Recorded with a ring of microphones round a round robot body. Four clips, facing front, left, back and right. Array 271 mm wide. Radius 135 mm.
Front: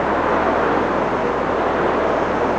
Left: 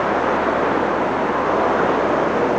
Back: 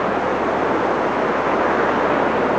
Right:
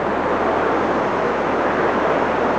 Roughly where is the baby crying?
I don't hear a baby crying.